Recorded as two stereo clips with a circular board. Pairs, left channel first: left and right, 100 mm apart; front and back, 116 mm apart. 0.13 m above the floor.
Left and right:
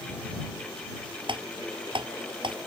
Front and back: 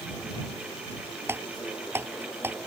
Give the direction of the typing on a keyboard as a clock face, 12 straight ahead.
4 o'clock.